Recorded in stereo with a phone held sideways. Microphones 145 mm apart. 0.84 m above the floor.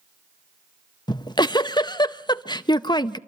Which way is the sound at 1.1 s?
30° left (ahead or behind).